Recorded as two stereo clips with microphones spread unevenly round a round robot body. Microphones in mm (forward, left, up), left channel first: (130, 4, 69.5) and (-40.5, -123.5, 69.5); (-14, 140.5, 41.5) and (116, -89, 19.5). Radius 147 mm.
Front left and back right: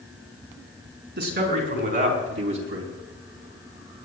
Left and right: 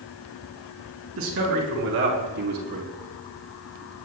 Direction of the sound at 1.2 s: 110° right.